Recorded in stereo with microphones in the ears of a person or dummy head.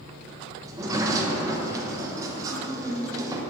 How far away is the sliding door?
About 0.7 m.